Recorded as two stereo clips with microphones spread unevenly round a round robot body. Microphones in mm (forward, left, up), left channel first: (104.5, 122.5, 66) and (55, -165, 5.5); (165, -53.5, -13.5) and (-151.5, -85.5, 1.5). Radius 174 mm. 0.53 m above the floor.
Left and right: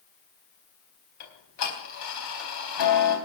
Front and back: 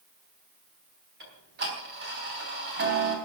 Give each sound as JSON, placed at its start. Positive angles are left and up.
{"t": 1.2, "sound": "ticking", "azimuth_deg": 125, "distance_m": 4.0}